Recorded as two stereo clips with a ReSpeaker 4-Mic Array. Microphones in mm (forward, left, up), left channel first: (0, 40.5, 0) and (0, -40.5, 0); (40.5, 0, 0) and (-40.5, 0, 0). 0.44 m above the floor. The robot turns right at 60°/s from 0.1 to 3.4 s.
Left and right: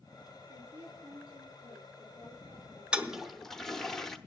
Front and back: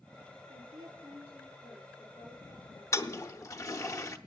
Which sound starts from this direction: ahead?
A toilet flushing, at 2.9 s.